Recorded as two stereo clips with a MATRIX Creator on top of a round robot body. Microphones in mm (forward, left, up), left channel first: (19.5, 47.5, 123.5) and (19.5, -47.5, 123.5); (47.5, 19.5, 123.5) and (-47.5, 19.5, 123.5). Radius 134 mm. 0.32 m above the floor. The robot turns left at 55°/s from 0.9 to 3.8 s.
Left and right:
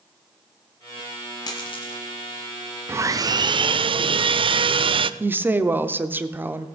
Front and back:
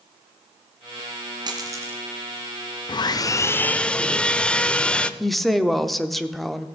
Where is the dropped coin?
140° left, 1.7 m; by 2.0 s 105° left, 1.7 m.